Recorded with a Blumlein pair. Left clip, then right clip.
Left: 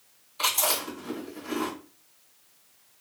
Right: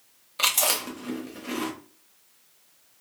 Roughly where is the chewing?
Ahead right.